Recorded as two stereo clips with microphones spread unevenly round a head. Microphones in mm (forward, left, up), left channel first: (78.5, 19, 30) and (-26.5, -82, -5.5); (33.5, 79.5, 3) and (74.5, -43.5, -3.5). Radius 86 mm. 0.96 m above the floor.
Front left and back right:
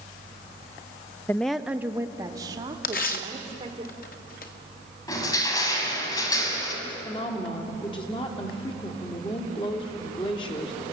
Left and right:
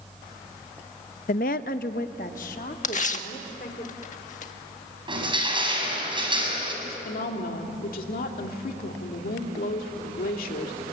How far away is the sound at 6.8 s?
About 3 m.